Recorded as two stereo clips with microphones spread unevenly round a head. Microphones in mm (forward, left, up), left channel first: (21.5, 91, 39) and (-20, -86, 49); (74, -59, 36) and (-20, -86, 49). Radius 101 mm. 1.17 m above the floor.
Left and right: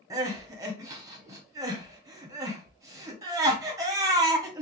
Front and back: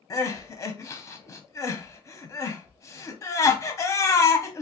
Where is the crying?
30° right, 0.7 m.